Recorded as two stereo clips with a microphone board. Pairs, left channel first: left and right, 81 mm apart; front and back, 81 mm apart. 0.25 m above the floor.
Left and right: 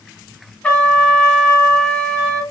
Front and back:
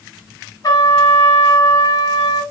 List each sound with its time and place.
0.6 s a trumpet: 15° left, 1.4 m